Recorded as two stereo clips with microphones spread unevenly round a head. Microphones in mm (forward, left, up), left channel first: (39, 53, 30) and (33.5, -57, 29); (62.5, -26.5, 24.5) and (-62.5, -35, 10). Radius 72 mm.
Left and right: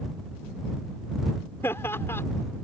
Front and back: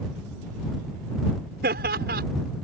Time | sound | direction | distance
1.6 | laughter | 160° left | ?